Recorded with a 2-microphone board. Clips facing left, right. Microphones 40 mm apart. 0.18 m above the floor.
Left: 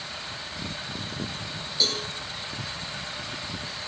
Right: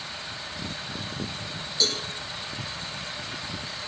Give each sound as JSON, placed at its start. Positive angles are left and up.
{"t": 1.8, "sound": "a cowbell", "side_deg": 10, "distance_m": 3.5}